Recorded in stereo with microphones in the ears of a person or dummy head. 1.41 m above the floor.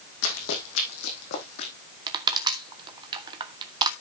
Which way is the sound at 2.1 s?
25° right (ahead or behind).